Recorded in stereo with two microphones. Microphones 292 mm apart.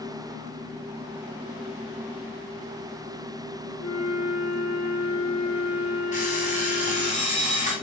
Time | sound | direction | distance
3.8 | a flute | 60° left (ahead or behind) | 5 m
6.1 | an alarm clock | 25° left (ahead or behind) | 7.5 m